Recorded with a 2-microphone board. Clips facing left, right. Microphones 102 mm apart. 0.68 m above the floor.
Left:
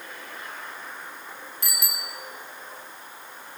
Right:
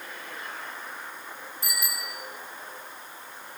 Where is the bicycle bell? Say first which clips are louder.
Right 2 dB; 85° left, 4 m.